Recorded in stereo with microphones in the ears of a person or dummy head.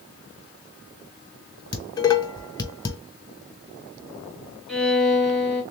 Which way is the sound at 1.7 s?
20° left (ahead or behind).